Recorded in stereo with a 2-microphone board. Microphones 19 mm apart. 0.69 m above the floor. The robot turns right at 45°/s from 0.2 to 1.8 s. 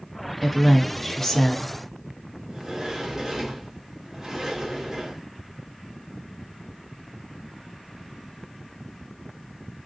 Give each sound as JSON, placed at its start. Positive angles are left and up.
{"t": 0.4, "sound": "a woman speaking", "azimuth_deg": -10, "distance_m": 0.7}
{"t": 2.5, "sound": "a sliding door", "side_deg": -25, "distance_m": 1.0}